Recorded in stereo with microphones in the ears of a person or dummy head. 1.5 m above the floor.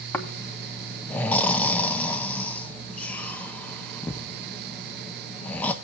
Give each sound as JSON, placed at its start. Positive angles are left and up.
{"t": 0.1, "sound": "snoring", "side_deg": 10, "distance_m": 1.4}